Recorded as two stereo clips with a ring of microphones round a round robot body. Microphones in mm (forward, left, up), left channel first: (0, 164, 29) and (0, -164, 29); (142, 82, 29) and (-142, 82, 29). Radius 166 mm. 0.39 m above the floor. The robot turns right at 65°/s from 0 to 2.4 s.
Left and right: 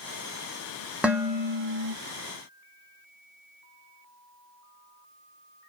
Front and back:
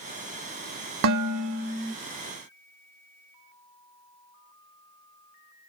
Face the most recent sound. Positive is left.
turn(degrees=-90)